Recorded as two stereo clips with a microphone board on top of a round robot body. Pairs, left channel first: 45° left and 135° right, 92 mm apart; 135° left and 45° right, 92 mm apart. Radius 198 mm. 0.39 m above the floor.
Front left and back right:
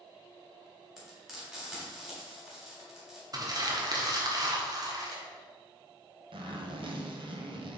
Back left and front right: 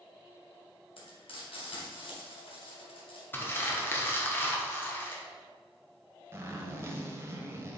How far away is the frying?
About 3 m.